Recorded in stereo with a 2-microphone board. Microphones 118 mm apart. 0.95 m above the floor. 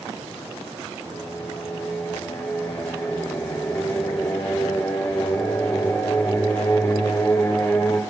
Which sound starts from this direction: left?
Singing, at 1.0 s.